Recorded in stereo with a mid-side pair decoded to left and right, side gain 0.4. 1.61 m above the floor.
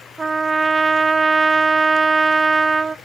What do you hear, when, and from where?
0.2 s a trumpet: 35° right, 0.5 m